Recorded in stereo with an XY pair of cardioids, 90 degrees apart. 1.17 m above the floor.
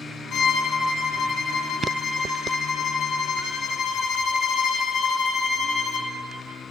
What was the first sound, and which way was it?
A violin, 65° left.